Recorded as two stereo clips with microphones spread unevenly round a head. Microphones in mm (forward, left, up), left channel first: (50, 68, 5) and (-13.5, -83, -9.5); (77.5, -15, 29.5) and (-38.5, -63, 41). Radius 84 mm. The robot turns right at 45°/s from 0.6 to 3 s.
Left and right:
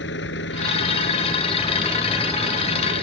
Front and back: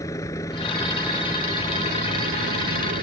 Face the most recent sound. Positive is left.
turn(degrees=-160)